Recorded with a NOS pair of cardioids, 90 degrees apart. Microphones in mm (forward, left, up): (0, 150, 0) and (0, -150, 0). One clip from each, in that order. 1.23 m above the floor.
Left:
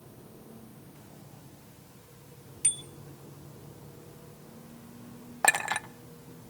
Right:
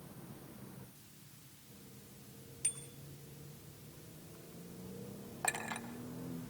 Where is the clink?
60° left, 1.0 m.